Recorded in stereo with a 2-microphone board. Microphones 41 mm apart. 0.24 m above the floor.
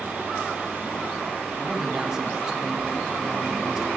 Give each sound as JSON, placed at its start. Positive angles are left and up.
{"t": 1.6, "sound": "a man speaking", "side_deg": -15, "distance_m": 1.0}